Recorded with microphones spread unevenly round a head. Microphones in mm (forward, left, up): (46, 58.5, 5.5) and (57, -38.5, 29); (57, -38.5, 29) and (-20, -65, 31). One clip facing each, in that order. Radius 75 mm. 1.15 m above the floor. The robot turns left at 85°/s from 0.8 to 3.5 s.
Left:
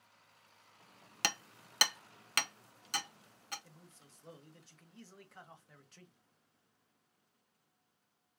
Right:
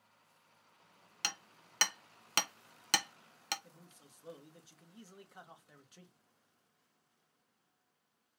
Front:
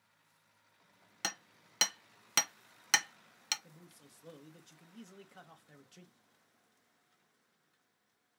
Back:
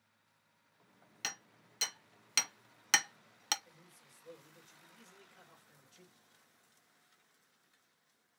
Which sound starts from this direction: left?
Hammering, at 1.2 s.